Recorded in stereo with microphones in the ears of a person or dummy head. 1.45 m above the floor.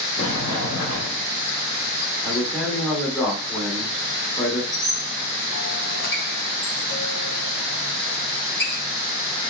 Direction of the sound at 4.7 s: 65° left (ahead or behind).